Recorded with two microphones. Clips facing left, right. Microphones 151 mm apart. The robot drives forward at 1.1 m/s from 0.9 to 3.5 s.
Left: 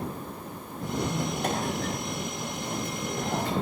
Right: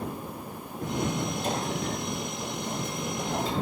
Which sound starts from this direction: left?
A squeak, at 1.0 s.